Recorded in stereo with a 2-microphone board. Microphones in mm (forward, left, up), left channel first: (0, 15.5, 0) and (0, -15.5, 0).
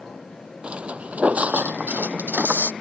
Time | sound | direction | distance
0.6 | footsteps | 40° right (ahead or behind) | ?